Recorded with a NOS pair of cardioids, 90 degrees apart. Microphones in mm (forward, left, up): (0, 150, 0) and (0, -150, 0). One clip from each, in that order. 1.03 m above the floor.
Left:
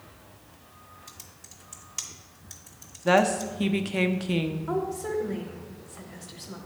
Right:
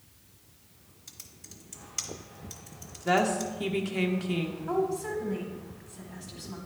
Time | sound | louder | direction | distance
1.1 | typing on a keyboard | left 2 dB | straight ahead | 0.9 m
3.0 | a woman speaking | left 4 dB | 25° left | 0.7 m
4.7 | a woman speaking | right 3 dB | straight ahead | 1.1 m